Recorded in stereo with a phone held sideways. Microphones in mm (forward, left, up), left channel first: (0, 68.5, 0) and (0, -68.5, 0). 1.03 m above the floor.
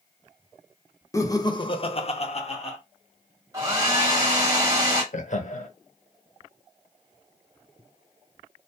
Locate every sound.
1.1 s laughter: 20° left (ahead or behind), 0.7 m; by 2.8 s 40° left (ahead or behind), 0.8 m
3.5 s a hair dryer: 20° right (ahead or behind), 1.3 m
5.1 s laughter: 60° left (ahead or behind), 0.6 m